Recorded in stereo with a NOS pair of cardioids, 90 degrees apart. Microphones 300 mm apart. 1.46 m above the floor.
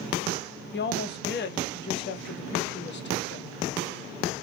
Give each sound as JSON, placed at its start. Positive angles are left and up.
{"t": 0.7, "sound": "a woman speaking", "azimuth_deg": 40, "distance_m": 0.8}